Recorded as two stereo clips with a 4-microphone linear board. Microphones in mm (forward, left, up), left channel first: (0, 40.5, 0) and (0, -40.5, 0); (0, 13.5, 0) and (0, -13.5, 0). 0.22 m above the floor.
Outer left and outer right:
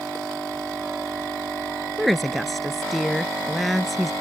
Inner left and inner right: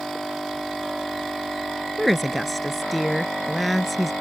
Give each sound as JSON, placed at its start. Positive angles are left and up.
{"t": 2.0, "sound": "a woman speaking", "side_deg": 0}